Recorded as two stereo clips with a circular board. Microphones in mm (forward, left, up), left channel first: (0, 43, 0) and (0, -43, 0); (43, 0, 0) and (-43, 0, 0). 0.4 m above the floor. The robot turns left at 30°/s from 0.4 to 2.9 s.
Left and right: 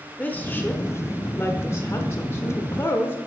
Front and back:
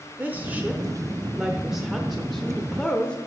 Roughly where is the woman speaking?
Behind left.